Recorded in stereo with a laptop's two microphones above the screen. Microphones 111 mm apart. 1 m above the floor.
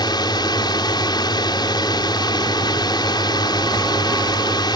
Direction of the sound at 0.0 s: 40° left (ahead or behind).